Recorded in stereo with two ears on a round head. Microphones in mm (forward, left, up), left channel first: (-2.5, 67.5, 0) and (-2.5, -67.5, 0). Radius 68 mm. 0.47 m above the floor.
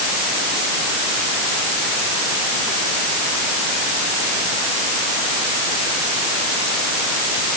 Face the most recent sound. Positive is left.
No sound to turn to.